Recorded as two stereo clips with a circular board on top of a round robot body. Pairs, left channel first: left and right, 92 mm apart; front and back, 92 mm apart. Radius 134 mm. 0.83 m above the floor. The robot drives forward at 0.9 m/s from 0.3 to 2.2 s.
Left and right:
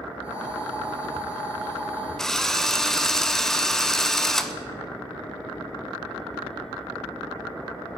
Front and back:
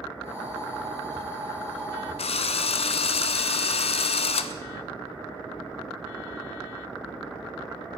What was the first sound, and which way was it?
A drill, 5° left.